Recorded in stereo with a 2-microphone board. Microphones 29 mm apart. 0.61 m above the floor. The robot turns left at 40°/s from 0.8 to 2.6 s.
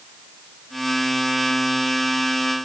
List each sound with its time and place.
Only background noise.